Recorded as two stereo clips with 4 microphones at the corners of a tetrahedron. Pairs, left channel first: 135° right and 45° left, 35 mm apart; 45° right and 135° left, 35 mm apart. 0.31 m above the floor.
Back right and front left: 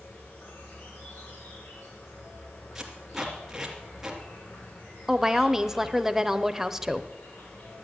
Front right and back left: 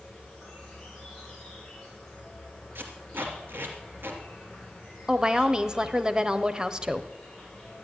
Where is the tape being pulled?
130° left, 3 m.